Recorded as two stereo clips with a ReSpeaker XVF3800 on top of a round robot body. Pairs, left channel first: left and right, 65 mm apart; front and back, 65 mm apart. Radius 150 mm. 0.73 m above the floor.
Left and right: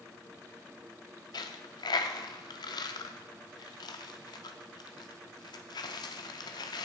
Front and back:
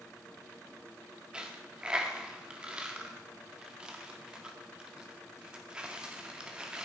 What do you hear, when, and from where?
1.3 s a dropped coin: 105° left, 0.5 m